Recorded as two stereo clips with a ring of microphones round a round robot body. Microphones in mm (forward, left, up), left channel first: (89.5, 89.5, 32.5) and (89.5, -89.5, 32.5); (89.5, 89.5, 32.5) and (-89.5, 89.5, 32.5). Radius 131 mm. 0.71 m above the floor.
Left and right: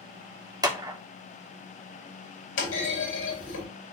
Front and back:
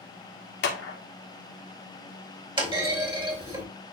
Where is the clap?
20° right, 1.5 m.